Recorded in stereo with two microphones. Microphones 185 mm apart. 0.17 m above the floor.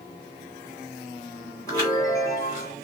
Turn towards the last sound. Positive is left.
turn(degrees=20)  # may be behind; listen again after turning